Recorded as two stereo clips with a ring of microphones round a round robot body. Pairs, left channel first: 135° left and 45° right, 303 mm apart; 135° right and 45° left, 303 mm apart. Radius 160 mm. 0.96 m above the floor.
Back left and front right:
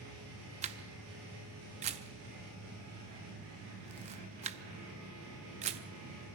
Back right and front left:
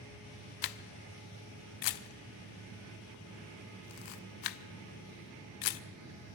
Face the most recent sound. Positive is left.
turn(degrees=-115)